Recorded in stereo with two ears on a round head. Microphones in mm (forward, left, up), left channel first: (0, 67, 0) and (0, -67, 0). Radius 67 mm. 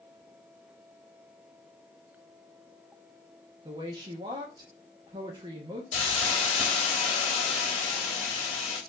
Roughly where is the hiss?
Left.